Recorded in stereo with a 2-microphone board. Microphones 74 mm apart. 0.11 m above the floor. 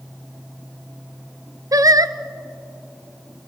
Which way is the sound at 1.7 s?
50° right (ahead or behind).